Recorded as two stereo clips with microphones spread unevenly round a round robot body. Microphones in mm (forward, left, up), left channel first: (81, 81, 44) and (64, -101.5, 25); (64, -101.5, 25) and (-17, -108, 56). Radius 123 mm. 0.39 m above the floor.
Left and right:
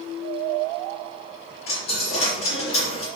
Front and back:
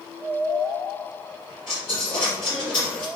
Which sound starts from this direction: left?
A dropped coin, at 1.7 s.